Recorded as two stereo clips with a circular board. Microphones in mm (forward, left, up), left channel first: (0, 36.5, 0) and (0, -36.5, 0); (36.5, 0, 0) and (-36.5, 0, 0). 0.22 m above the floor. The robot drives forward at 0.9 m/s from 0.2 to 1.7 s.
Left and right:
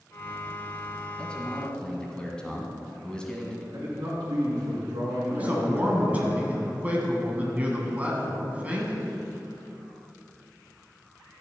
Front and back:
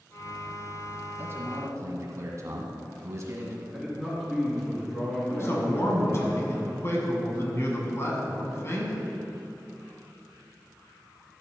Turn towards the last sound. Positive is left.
turn(degrees=-30)